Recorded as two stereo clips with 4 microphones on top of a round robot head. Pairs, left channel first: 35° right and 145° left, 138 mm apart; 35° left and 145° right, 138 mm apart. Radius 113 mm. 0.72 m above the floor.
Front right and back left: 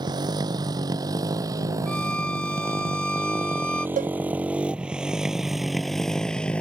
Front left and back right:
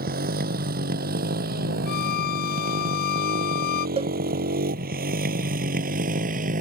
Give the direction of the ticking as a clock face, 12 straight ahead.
No ticking in this recording.